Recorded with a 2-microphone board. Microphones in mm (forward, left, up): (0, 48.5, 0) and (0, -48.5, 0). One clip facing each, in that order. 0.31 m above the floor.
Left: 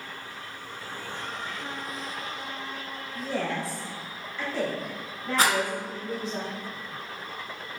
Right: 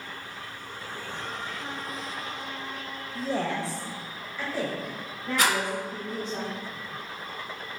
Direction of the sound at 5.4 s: 35° left (ahead or behind).